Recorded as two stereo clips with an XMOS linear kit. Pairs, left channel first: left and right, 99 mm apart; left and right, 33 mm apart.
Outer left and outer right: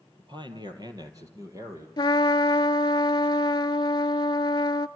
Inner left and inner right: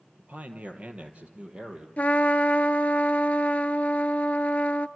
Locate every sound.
0.2 s a man speaking: 50° right (ahead or behind), 2.5 m; by 1.9 s 30° right (ahead or behind), 3 m
2.0 s a trumpet: 45° left (ahead or behind), 0.5 m